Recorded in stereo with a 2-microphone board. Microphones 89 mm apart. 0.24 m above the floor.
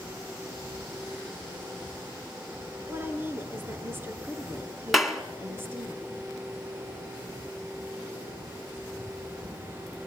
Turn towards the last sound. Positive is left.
turn(degrees=0)  # may be behind; listen again after turning